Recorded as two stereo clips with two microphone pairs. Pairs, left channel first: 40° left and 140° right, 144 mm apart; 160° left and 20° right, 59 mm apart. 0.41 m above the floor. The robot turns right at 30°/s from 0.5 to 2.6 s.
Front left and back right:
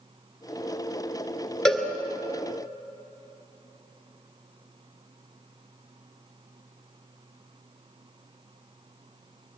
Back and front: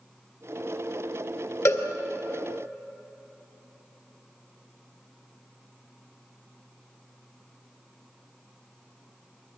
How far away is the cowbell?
About 2 m.